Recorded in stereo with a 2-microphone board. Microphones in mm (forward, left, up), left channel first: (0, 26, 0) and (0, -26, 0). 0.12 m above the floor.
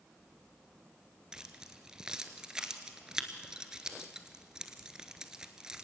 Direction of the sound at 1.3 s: 15° right (ahead or behind).